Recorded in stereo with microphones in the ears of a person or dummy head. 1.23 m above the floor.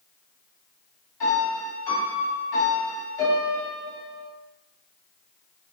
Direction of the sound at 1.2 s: 25° left (ahead or behind).